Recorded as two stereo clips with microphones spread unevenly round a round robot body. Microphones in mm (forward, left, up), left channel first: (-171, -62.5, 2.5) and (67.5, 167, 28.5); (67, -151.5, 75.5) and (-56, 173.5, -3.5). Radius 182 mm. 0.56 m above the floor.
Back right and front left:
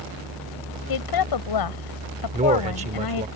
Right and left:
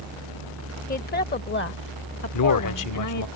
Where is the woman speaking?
140° right; by 3.3 s 115° right.